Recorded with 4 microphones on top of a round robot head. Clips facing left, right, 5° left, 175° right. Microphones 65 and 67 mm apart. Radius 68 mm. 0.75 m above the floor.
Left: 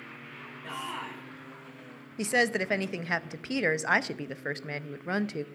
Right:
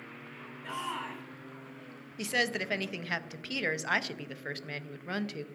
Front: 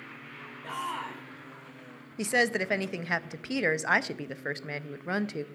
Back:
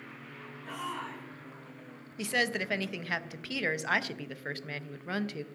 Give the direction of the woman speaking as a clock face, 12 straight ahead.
10 o'clock.